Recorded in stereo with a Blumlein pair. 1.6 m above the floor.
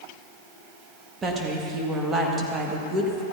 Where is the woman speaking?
20° right, 1.8 m.